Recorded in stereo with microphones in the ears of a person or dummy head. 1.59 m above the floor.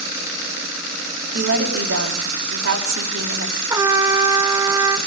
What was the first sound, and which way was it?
A woman speaking, 60° right (ahead or behind).